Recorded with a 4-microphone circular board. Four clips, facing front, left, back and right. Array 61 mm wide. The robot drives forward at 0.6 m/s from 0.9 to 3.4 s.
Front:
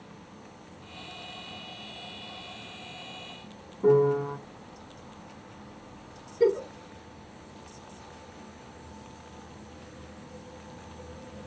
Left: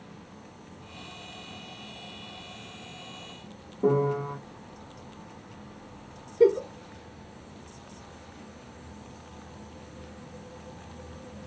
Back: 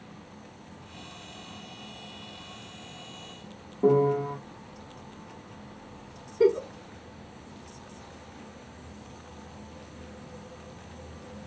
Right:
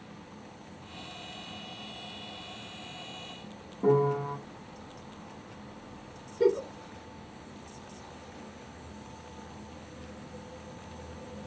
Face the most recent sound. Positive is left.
turn(degrees=155)